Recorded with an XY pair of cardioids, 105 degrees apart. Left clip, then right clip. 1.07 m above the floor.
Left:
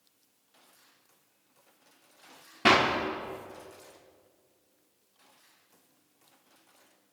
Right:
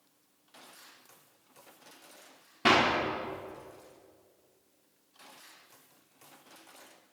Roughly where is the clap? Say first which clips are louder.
Left 2 dB; ahead.